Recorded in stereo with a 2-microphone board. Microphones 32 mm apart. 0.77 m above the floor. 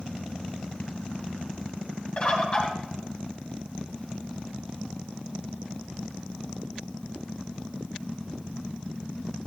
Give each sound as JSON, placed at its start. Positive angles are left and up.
{"t": 2.2, "sound": "a bird", "side_deg": 35, "distance_m": 2.5}